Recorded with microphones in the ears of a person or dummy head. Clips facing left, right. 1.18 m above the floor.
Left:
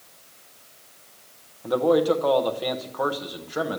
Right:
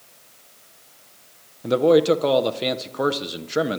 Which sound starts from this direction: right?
A man speaking, at 1.6 s.